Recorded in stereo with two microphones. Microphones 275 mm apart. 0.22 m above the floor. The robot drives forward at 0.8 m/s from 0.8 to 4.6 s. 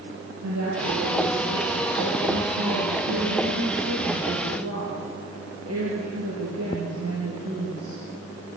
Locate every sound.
0.4 s a woman speaking: 75° right (ahead or behind), 5 m; by 8.0 s 60° right (ahead or behind), 5.5 m